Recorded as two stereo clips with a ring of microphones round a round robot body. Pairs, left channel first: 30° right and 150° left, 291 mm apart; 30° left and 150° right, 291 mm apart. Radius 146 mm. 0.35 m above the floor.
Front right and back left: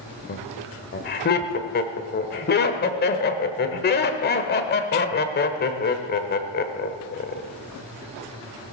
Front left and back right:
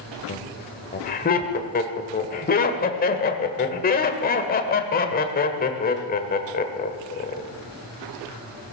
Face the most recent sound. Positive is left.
turn(degrees=-5)